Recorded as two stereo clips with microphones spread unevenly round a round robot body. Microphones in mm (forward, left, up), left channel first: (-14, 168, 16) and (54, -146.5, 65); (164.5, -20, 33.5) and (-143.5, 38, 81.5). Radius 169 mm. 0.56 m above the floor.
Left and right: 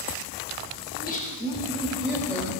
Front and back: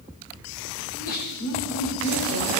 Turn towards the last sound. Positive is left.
turn(degrees=5)